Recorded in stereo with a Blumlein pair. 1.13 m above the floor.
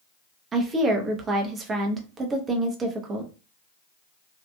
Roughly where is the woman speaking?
Ahead.